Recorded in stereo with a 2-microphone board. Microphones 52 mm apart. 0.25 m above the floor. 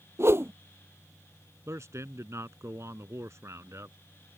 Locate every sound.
0.2 s a whoosh: 55° right (ahead or behind)
1.7 s a man speaking: 65° right (ahead or behind)